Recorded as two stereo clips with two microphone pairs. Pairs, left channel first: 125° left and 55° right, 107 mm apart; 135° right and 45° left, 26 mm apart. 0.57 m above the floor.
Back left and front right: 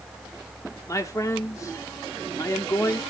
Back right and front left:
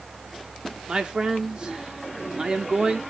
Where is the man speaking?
80° left, 1.5 m.